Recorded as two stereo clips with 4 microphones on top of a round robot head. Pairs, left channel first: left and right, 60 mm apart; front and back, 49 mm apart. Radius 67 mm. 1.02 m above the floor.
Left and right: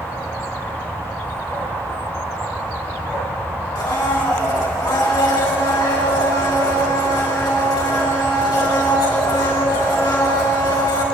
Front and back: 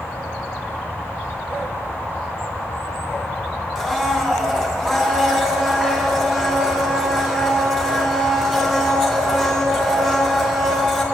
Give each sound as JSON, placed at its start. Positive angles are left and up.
{"t": 3.8, "sound": "a blender", "azimuth_deg": 95, "distance_m": 3.5}